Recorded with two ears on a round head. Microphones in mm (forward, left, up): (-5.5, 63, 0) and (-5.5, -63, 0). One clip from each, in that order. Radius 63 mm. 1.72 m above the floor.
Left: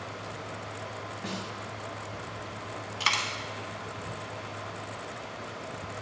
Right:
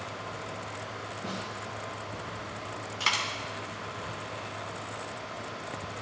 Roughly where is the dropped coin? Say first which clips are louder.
Left 1 dB; centre.